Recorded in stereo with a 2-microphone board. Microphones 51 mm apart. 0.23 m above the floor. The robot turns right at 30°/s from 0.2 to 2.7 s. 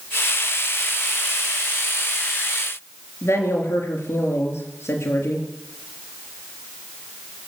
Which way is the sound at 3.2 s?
70° left (ahead or behind).